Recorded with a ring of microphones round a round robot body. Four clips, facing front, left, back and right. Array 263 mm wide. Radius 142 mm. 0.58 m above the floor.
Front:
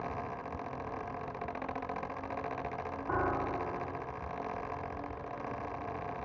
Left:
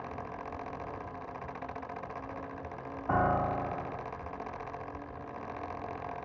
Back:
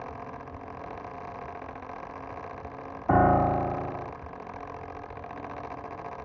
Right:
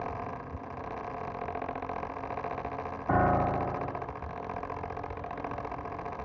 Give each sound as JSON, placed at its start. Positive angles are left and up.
{"t": 3.1, "sound": "a piano", "azimuth_deg": -170}